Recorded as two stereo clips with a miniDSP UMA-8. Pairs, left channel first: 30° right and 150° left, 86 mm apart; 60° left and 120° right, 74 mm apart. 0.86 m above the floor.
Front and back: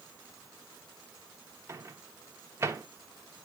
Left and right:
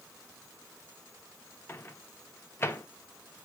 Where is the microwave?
110° left, 0.9 m.